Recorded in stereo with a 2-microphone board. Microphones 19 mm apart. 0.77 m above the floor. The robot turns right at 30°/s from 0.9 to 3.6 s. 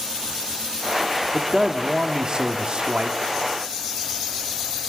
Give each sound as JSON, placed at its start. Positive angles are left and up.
{"t": 1.3, "sound": "a man speaking", "azimuth_deg": -160, "distance_m": 1.6}